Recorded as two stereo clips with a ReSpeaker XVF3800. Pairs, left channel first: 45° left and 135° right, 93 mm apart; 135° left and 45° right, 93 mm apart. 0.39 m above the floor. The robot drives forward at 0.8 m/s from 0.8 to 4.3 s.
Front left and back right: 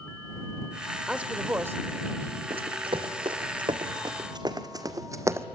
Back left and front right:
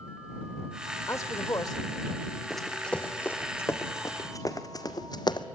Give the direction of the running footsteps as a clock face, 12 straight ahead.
5 o'clock.